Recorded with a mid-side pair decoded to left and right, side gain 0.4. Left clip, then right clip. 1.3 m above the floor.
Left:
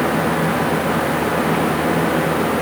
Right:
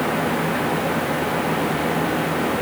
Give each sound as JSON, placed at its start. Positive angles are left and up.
{"t": 0.0, "sound": "a fan", "azimuth_deg": 55, "distance_m": 1.3}